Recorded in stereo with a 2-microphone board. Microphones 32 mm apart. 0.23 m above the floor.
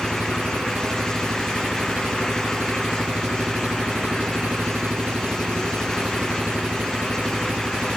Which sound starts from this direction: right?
An engine running, at 0.0 s.